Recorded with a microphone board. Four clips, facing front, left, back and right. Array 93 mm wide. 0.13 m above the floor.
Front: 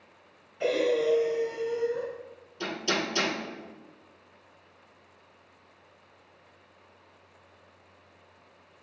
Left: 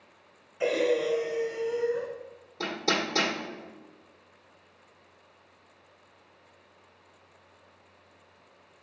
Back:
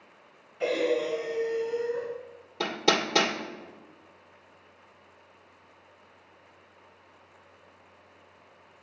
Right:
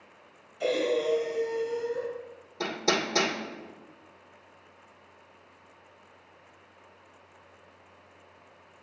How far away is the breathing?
About 1.8 m.